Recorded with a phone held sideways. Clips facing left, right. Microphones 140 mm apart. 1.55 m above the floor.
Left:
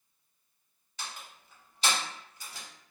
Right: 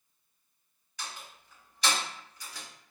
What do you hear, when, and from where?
1.0 s a door slam: 25° left (ahead or behind), 1.4 m